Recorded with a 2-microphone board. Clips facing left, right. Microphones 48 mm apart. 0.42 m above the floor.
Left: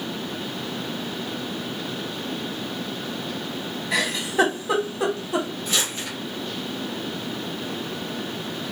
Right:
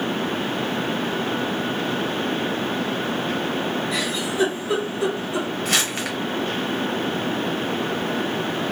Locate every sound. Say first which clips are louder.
3.9 s a giggle: left 1 dB; 75° left (ahead or behind), 1.2 m
5.7 s crumpling: right 4 dB; 75° right (ahead or behind), 1.0 m